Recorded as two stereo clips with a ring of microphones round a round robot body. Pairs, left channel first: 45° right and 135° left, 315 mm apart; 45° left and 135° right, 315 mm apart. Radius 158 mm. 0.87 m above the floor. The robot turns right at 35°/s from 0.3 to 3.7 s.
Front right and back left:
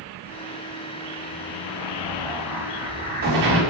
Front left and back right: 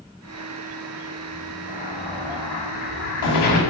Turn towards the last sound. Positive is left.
turn(degrees=90)